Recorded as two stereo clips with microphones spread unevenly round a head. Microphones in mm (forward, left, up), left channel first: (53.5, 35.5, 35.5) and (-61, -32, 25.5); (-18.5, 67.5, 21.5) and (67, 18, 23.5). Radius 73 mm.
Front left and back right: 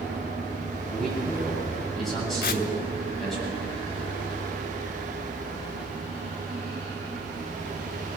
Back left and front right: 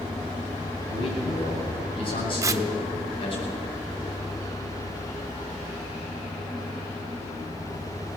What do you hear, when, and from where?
0.9 s a man speaking: 120° left, 9 m
2.4 s tearing paper: 20° left, 1.0 m